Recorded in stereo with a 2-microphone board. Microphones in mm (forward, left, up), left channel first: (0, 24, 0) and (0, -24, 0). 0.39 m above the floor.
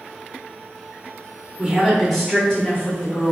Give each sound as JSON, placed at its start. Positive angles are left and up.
{"t": 1.6, "sound": "a woman speaking", "side_deg": -15, "distance_m": 0.8}